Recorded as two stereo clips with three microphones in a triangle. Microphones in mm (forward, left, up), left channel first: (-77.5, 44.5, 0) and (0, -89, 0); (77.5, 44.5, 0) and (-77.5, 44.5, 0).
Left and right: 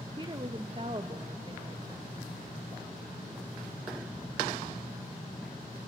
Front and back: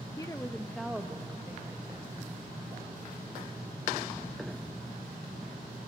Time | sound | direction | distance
0.2 | a woman speaking | 40° right | 0.6 m